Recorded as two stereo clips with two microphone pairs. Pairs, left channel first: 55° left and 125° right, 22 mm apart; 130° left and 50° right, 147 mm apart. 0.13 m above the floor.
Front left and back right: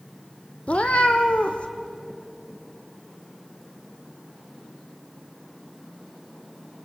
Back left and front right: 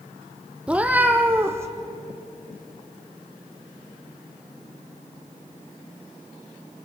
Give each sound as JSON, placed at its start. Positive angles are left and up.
{"t": 0.7, "sound": "a cat meowing", "azimuth_deg": 35, "distance_m": 1.7}